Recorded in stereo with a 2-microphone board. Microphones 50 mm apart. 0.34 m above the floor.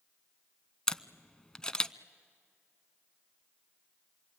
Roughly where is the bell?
I don't hear a bell.